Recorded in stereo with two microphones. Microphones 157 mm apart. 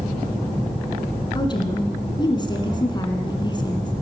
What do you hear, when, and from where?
1.4 s a woman speaking: 30° left (ahead or behind), 1.8 m